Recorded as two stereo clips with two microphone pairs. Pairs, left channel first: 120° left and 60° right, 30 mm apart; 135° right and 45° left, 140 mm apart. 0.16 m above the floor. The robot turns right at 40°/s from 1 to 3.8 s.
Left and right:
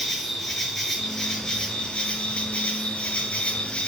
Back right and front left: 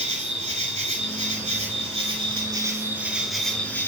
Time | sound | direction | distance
0.0 | an insect | 40° left | 2.5 m